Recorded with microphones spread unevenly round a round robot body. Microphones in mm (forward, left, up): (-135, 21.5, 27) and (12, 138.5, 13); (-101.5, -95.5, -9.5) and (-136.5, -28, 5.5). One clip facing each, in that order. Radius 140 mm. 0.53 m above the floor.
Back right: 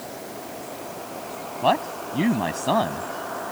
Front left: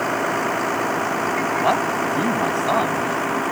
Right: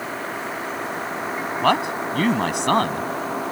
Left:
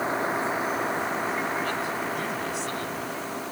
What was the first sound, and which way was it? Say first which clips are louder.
A vehicle: front left 13 dB, left 2 dB; 35° left.